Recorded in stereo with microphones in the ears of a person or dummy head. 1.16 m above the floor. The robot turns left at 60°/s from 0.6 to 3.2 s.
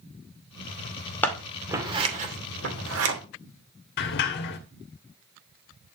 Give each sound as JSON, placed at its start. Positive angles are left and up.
{"t": 1.2, "sound": "scissors", "side_deg": 15, "distance_m": 2.5}
{"t": 4.0, "sound": "a sliding door", "side_deg": 55, "distance_m": 1.4}